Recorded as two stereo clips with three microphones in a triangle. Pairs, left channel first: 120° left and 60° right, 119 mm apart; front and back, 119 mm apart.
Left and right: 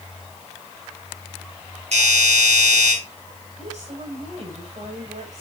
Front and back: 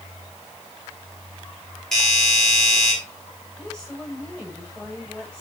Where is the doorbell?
90° right, 6 m.